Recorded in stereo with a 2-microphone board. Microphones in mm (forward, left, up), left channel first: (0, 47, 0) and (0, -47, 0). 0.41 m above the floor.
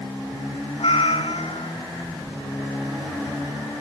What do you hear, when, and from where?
0.8 s a cat meowing: 85° left, 1.2 m